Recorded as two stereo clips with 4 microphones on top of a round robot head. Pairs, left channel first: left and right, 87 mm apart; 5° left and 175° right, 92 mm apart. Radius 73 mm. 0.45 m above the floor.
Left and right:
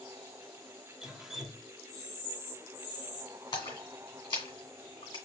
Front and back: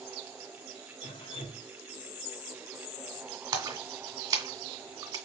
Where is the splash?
140° left, 2.5 m.